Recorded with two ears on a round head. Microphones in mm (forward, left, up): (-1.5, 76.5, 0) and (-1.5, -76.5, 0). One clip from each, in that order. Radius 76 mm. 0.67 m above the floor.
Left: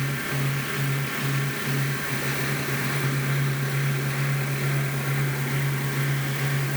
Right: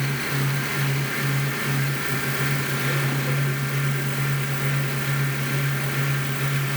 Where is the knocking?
I don't hear knocking.